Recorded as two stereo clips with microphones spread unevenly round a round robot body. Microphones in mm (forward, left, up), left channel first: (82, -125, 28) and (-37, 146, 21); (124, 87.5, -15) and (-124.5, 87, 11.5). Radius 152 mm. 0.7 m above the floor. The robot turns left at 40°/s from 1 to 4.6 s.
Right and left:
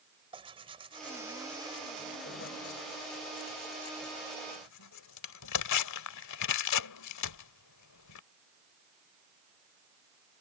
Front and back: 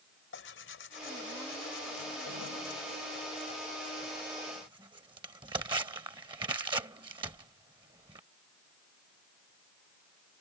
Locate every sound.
0.3 s tearing paper: 40° left; by 8.2 s 105° right